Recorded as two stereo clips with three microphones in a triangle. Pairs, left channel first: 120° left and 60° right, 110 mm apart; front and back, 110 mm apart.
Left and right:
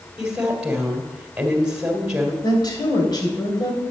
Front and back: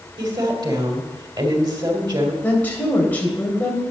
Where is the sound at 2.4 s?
75° left, 3 m.